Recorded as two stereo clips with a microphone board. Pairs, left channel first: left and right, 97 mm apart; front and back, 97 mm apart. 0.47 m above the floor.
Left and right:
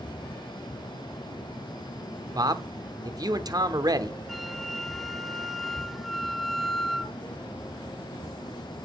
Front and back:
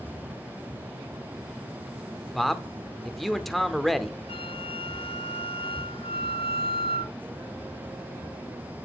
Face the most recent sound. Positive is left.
turn(degrees=0)